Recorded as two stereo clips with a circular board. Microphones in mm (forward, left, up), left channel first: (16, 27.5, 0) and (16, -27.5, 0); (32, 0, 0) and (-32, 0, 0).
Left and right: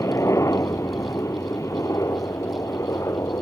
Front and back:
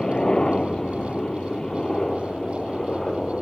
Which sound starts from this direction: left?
A helicopter, at 0.0 s.